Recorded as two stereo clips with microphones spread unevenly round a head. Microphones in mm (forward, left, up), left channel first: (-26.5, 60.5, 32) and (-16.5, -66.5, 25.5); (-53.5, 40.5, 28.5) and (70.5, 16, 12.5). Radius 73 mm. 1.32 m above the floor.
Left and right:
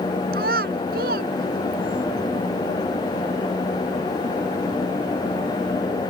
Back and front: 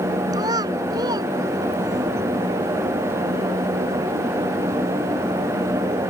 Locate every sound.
0.3 s a child speaking: 80° right